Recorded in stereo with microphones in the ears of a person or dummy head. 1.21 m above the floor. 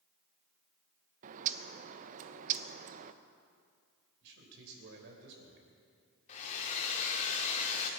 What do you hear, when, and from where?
1.2 s a bird: 40° right (ahead or behind), 0.7 m
4.2 s a man speaking: 65° right (ahead or behind), 4 m
6.3 s a hair dryer: 40° left (ahead or behind), 2.5 m